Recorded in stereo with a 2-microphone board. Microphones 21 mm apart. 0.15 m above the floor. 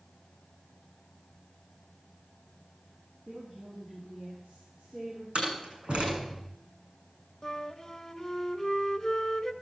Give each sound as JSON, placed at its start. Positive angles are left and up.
{"t": 3.3, "sound": "a woman speaking", "side_deg": -25, "distance_m": 8.5}
{"t": 5.3, "sound": "a door slam", "side_deg": -55, "distance_m": 7.0}
{"t": 7.4, "sound": "a flute", "side_deg": 20, "distance_m": 1.3}